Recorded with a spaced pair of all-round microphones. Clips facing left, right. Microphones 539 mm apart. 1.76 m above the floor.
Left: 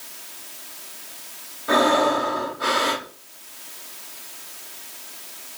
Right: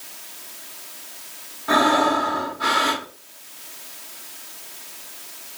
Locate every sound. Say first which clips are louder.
1.7 s breathing: even; 15° right (ahead or behind), 0.8 m